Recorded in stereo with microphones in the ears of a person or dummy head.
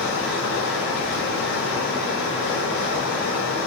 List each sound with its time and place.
0.0 s running water: 60° left (ahead or behind), 3.5 m